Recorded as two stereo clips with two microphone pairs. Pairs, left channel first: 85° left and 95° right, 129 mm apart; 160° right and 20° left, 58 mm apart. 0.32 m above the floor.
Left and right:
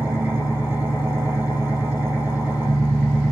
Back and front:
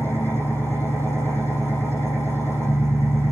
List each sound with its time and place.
0.0 s an engine running: 165° right, 4 m